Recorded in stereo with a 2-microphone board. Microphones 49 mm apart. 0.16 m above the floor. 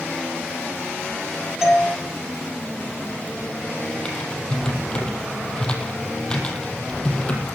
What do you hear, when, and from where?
1.6 s a doorbell: 15° right (ahead or behind), 5.5 m
4.0 s typing on a keyboard: 20° left (ahead or behind), 3 m